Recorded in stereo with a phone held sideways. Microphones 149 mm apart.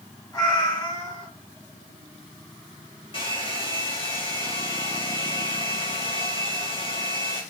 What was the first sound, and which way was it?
A cat meowing, 25° left (ahead or behind).